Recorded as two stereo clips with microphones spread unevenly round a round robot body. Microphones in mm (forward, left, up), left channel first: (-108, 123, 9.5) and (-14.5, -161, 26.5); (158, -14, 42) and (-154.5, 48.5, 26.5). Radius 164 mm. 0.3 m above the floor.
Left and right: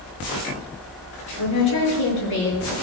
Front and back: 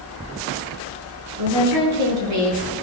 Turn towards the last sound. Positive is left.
turn(degrees=130)